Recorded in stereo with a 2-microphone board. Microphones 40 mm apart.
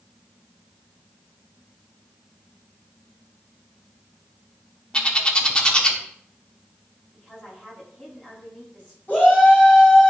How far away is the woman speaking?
About 4.5 m.